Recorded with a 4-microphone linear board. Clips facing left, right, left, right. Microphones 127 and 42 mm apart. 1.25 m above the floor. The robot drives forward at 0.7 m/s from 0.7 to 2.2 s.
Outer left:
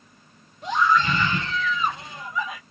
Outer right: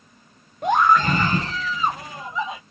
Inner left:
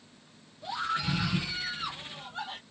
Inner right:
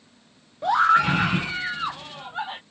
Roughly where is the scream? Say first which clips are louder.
Outer right 4 dB, inner right 14 dB; right.